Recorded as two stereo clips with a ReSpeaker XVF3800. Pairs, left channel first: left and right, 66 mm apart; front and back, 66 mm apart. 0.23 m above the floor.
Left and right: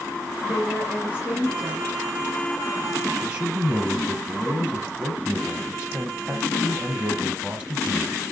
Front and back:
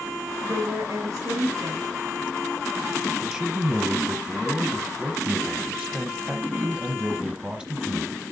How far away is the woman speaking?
About 4 m.